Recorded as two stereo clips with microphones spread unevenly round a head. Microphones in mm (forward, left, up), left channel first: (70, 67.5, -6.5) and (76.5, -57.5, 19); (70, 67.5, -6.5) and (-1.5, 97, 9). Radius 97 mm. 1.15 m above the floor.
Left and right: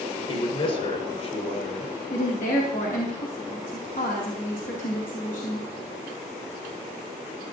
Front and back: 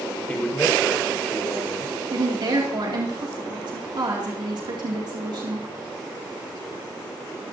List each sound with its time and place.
0.3 s a man speaking: 50° left, 4.5 m; by 2.0 s 60° left, 4 m
2.1 s a woman speaking: 135° left, 2.5 m